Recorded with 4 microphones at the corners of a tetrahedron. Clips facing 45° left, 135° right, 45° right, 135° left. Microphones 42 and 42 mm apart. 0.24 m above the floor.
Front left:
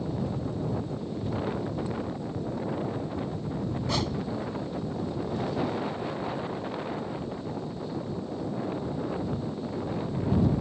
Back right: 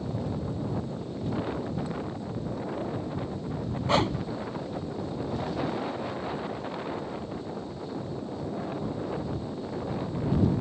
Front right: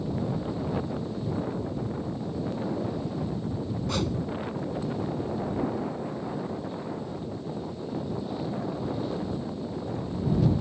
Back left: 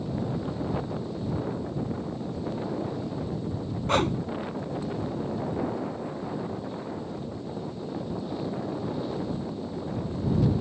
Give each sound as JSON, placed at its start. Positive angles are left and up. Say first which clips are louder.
{"t": 3.9, "sound": "a whoosh", "louder": "back right 7 dB, back left 7 dB", "azimuth_deg": 170}